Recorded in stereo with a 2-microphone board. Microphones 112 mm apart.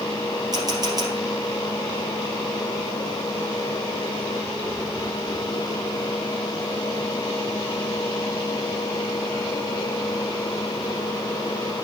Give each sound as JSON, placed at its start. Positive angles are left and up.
{"t": 0.5, "sound": "a camera shutter", "side_deg": -35, "distance_m": 3.0}